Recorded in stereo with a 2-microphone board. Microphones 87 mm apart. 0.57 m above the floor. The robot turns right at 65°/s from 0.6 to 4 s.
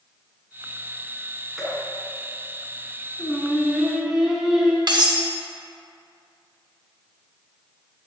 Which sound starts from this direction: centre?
Dripping, at 1.6 s.